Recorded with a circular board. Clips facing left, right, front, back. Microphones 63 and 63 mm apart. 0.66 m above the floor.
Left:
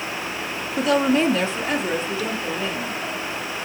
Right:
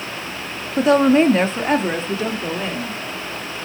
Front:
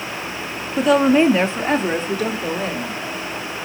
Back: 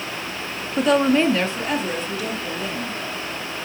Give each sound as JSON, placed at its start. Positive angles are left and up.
{"t": 0.8, "sound": "a woman speaking", "azimuth_deg": -95, "distance_m": 0.8}